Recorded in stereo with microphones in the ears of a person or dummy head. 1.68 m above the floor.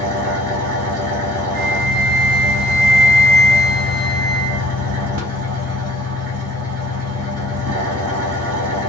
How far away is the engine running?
About 1.1 m.